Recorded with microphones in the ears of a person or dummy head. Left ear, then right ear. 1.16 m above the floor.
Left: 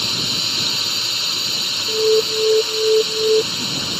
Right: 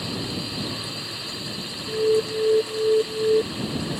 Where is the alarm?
65° left (ahead or behind).